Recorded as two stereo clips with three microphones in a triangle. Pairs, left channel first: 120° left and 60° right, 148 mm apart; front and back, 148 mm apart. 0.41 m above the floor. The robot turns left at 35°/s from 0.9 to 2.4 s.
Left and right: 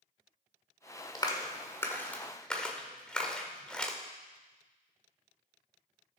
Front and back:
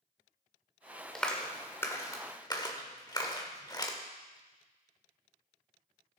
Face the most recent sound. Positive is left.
turn(degrees=40)